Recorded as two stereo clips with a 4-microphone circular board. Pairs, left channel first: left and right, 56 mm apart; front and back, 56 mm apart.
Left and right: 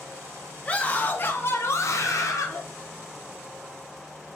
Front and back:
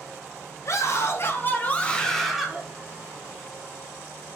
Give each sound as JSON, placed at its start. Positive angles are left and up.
{"t": 0.7, "sound": "a scream", "azimuth_deg": 25, "distance_m": 1.0}